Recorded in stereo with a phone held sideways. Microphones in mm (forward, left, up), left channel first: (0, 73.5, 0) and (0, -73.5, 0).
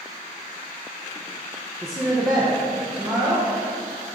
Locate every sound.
1.8 s a woman speaking: centre (ahead or behind), 0.9 m